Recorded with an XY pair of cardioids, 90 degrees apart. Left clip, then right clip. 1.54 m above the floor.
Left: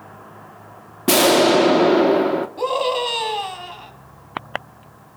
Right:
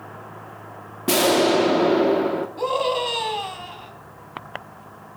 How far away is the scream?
About 4 m.